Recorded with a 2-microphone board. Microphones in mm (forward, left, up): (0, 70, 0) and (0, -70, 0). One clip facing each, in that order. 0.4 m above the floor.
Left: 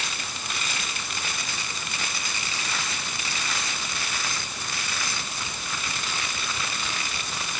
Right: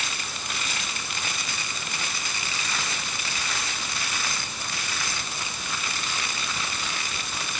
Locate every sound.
Only background noise.